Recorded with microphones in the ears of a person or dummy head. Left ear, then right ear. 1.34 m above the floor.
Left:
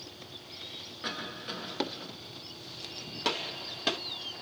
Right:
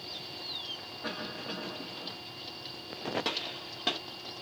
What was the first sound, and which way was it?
A cough, 40° left (ahead or behind).